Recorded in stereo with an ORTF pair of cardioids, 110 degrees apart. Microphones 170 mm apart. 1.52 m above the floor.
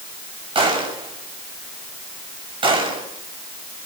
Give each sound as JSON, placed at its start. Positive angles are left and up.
{"t": 0.6, "sound": "a gunshot", "azimuth_deg": -35, "distance_m": 6.5}